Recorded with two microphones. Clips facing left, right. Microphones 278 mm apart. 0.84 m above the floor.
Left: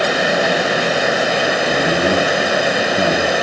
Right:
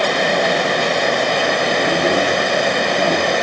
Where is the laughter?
45° left (ahead or behind), 4 m.